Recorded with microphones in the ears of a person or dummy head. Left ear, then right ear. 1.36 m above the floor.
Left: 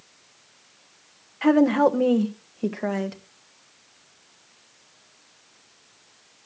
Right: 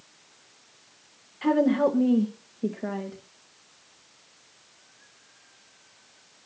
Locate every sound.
1.4 s a woman speaking: 30° left (ahead or behind), 1.5 m; by 3.2 s 65° left (ahead or behind), 1.8 m